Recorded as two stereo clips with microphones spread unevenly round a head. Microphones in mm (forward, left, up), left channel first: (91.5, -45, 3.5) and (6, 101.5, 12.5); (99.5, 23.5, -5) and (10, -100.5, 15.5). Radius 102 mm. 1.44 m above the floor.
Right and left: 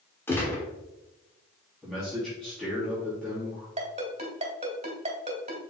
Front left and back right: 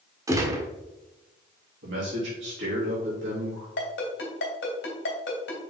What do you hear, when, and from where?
0.3 s a gunshot: 130° right, 1.1 m
1.8 s a man speaking: 145° right, 3 m
3.8 s a ringtone: 70° left, 2.5 m